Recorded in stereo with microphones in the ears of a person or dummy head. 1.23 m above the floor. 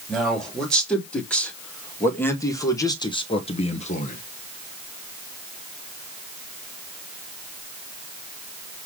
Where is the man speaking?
5° left (ahead or behind), 3 m; by 4.2 s 50° left (ahead or behind), 1.2 m.